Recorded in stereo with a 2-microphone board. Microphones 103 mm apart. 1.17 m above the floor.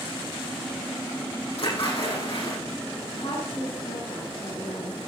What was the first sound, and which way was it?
A splash, 65° left (ahead or behind).